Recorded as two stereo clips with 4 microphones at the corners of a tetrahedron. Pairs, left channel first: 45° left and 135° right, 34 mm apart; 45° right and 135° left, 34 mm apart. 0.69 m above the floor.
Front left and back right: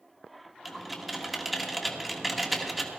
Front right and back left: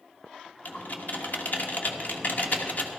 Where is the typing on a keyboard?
40° right, 1.3 m.